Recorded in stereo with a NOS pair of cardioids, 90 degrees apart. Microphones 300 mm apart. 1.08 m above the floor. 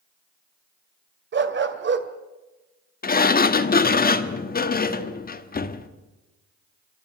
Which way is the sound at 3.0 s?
30° left.